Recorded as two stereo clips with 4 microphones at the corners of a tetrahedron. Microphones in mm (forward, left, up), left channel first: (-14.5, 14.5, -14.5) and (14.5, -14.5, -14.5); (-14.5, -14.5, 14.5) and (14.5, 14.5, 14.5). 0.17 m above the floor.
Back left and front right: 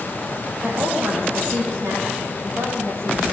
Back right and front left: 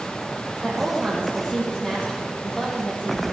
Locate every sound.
0.6 s a woman speaking: 55° right, 5.5 m